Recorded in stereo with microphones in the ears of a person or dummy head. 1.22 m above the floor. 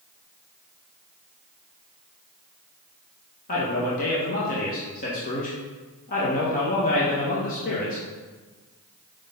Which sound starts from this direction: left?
A man speaking, at 3.5 s.